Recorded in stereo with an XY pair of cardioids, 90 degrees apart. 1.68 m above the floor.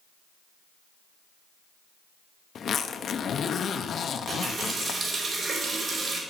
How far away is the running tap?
About 3.5 m.